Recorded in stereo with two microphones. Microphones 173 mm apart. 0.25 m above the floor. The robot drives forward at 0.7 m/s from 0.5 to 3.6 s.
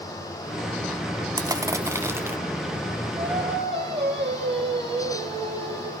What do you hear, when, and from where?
1.4 s crushing: 20° right (ahead or behind), 1.0 m; by 2.4 s 15° right (ahead or behind), 1.6 m
3.2 s singing: 85° right, 8 m